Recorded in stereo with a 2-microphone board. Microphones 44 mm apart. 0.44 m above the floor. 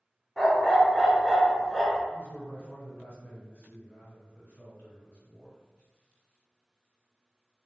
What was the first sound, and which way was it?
A dog barking, 5° left (ahead or behind).